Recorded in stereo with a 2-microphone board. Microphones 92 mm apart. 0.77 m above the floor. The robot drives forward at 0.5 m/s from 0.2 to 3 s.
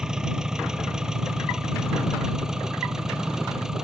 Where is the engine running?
5° right (ahead or behind).